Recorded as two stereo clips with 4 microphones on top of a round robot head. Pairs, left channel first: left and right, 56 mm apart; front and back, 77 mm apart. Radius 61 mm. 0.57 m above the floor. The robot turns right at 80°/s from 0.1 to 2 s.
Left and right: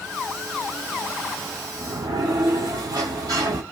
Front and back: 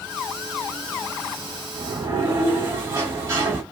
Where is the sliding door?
140° right, 1.2 m; by 3.6 s 120° right, 1.2 m.